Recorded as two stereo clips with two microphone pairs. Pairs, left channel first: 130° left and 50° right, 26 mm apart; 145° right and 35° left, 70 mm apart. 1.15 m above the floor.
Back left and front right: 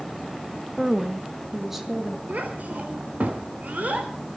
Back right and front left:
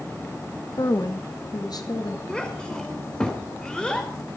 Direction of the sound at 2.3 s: 70° right.